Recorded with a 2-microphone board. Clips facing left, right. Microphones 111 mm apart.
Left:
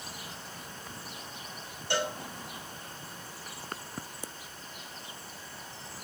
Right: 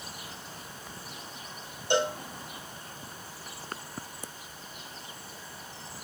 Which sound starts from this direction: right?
A cowbell, at 1.9 s.